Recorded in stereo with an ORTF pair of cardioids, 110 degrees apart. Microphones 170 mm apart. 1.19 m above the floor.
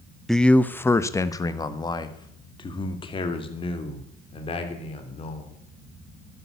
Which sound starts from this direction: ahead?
A man speaking, at 0.3 s.